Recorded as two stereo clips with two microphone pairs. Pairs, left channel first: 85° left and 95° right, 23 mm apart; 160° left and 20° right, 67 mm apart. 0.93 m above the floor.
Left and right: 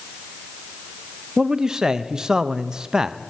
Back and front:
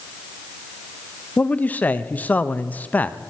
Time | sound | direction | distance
1.4 | a man speaking | 140° right | 0.6 m